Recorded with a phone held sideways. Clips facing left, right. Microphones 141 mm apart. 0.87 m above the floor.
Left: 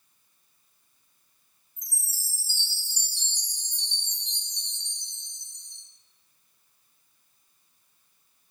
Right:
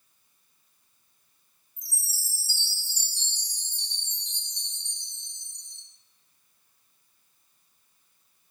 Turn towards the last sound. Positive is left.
turn(degrees=15)  # may be behind; listen again after turning